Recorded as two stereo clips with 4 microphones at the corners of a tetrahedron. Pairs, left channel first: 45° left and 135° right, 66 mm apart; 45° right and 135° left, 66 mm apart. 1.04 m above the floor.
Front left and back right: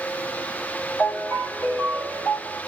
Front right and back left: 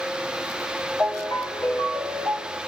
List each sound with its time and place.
1.0 s a ringtone: 15° right, 8.5 m